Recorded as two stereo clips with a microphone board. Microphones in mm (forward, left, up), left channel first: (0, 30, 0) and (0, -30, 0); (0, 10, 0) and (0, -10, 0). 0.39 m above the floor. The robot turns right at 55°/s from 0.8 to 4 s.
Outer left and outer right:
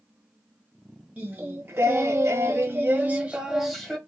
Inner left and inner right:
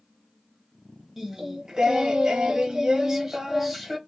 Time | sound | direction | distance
1.2 | singing | 145° right | 0.9 m